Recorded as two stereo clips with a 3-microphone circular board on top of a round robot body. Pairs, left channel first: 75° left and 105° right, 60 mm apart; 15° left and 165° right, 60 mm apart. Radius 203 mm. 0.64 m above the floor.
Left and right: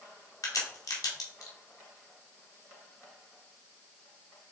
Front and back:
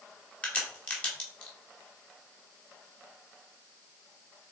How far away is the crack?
About 2.5 m.